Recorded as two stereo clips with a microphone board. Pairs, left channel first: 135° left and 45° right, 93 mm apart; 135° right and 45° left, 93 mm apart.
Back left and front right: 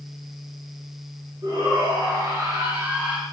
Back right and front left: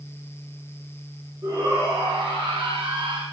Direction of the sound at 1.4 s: Straight ahead.